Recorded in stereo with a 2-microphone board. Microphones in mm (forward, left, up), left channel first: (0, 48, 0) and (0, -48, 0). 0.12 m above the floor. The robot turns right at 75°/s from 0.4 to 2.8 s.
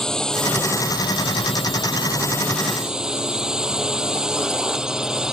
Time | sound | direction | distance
0.0 | a drone | 10° left | ?